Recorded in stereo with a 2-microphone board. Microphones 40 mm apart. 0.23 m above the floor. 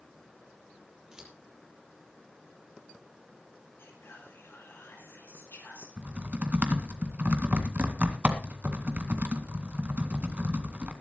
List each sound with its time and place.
1.1 s scissors: 20° right (ahead or behind), 5.5 m
3.8 s whispering: 75° left (ahead or behind), 8 m
6.0 s typing on a keyboard: 40° right (ahead or behind), 2.0 m